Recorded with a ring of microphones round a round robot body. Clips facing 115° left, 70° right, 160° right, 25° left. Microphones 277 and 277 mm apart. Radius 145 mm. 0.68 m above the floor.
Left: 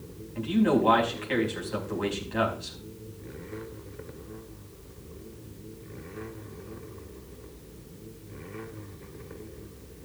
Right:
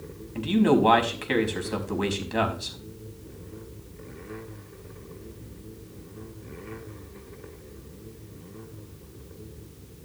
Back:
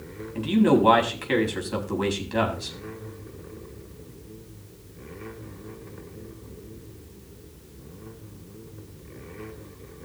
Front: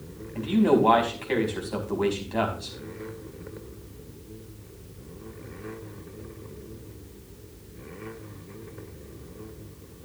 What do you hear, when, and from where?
0.3 s a man speaking: 95° right, 5 m